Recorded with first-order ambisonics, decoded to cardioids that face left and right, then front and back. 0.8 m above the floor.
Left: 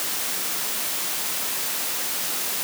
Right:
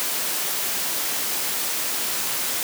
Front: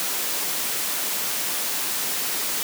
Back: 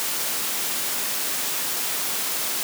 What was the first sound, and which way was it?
Only background noise.